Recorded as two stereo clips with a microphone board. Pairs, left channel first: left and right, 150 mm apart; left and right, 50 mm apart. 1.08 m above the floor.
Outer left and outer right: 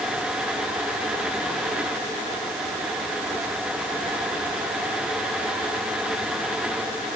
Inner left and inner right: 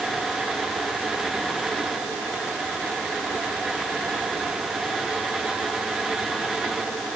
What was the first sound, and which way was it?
Only background noise.